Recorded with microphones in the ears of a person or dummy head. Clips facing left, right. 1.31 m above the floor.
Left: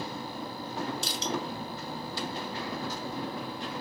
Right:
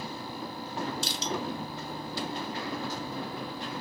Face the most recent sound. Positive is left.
turn(degrees=-50)  # may be behind; listen again after turning